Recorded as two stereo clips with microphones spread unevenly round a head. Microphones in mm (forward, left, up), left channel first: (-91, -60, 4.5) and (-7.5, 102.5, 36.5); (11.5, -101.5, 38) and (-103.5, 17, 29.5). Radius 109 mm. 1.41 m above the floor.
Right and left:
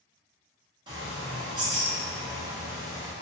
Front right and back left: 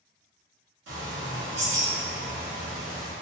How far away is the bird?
About 1.4 m.